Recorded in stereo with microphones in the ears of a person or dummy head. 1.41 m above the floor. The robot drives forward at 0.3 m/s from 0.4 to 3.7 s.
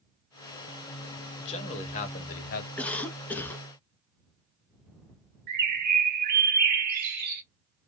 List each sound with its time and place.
1.4 s a man speaking: 30° left (ahead or behind), 0.9 m; by 2.7 s 45° left (ahead or behind), 0.7 m
2.8 s a cough: 5° left (ahead or behind), 0.7 m; by 3.7 s 10° left (ahead or behind), 0.5 m
5.5 s a bird: 55° right (ahead or behind), 0.5 m